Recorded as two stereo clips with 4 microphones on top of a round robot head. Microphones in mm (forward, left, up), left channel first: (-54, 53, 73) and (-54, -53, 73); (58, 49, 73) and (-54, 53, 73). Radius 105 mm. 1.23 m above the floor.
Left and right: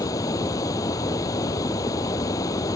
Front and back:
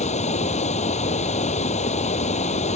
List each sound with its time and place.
0.0 s running water: 25° left